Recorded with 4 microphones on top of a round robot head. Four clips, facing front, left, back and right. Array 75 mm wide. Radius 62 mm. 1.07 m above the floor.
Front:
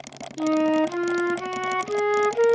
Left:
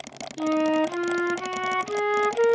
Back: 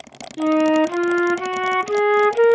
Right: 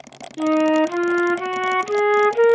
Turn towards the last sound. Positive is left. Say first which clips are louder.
# right 6 dB, back 4 dB
turn(degrees=-135)